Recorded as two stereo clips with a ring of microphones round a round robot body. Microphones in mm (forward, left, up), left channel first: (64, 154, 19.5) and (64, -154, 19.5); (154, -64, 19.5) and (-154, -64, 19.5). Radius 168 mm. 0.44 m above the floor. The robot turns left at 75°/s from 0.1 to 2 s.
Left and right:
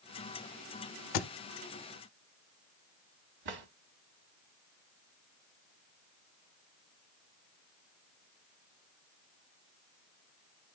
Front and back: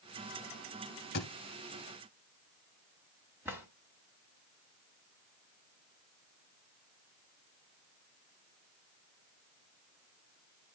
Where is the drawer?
95° right, 1.9 m.